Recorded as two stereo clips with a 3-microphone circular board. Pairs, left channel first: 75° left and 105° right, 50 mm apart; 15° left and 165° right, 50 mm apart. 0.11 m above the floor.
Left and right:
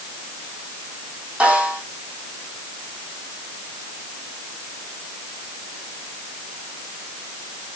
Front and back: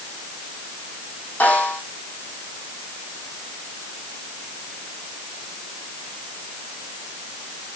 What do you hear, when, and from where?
1.4 s a snare drum: 45° right, 5 m